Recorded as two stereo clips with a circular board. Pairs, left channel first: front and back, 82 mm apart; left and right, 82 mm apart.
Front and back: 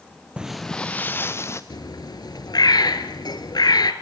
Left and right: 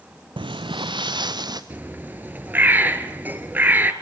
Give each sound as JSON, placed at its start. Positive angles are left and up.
{"t": 0.4, "sound": "footsteps", "azimuth_deg": -100, "distance_m": 0.7}
{"t": 1.7, "sound": "a bird", "azimuth_deg": -25, "distance_m": 1.3}